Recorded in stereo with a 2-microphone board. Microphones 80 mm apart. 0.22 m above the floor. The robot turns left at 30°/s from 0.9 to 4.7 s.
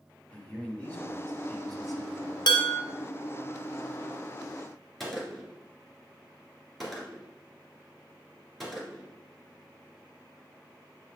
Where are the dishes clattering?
65° left (ahead or behind), 1.6 m.